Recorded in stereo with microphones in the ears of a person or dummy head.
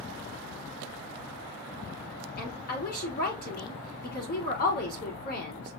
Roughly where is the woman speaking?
Left.